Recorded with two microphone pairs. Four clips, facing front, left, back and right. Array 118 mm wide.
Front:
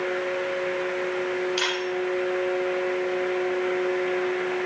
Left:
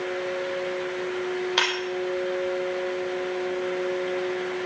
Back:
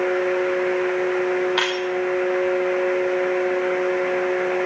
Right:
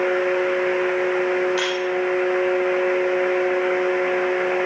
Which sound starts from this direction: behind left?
Breaking glass, at 1.6 s.